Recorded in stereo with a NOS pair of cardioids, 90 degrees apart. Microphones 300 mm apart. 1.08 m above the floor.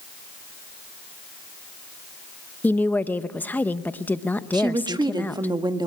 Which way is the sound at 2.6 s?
5° left.